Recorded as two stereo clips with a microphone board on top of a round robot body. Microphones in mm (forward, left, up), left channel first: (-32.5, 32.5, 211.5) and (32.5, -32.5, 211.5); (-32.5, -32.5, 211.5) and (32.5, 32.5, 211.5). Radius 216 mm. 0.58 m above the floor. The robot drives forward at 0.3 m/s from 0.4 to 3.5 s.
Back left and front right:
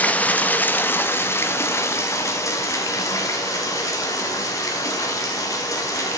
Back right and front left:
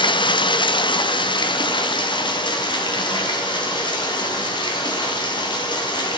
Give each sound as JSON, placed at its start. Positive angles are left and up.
{"t": 0.0, "sound": "running water", "azimuth_deg": -155, "distance_m": 0.8}